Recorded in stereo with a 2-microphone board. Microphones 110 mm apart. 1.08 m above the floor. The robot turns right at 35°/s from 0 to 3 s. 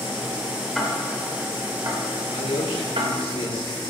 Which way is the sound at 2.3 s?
85° left.